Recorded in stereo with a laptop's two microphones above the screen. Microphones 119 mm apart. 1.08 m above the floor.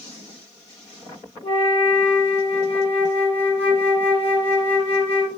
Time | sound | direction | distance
1.4 | a flute | 50° left (ahead or behind) | 1.9 m